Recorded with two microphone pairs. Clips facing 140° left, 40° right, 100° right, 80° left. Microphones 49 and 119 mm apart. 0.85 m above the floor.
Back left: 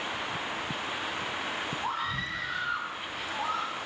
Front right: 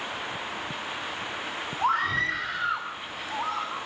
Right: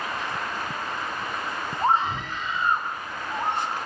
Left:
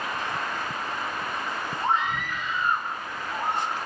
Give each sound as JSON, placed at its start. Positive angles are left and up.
{"t": 1.8, "sound": "a scream", "azimuth_deg": -50, "distance_m": 1.9}